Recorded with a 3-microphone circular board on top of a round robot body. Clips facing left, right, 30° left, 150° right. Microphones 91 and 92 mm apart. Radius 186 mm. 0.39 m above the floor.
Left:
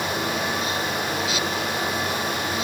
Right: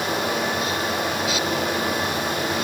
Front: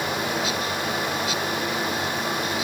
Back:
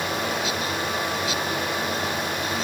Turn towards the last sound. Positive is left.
No sound to turn to.